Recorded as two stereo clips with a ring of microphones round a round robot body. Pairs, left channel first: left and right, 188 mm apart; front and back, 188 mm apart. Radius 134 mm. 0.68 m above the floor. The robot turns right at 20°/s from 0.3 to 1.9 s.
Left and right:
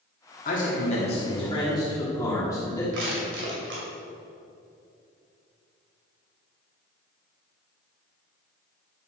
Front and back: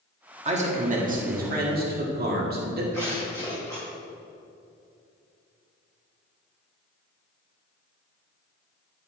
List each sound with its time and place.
0.5 s a man speaking: 135° left, 1.8 m; by 2.8 s 165° left, 1.8 m
2.9 s crushing: 80° right, 3 m